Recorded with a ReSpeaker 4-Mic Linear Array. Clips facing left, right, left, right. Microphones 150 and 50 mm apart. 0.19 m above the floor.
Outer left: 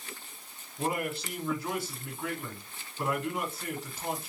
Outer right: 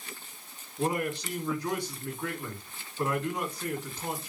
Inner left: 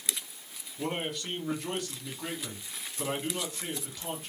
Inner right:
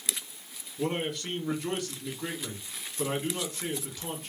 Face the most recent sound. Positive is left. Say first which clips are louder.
# outer right 2 dB, inner right 3 dB
turn(degrees=5)  # may be behind; listen again after turning